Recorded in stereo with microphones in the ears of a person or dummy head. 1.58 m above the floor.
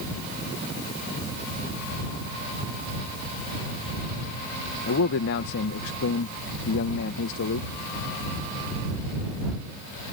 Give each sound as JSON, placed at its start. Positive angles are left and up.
{"t": 4.9, "sound": "a man speaking", "side_deg": 65}